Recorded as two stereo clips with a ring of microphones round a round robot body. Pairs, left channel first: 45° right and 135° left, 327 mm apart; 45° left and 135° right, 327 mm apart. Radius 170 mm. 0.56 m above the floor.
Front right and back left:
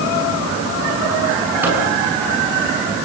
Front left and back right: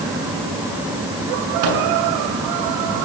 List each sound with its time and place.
1.6 s a microwave: 140° right, 7.5 m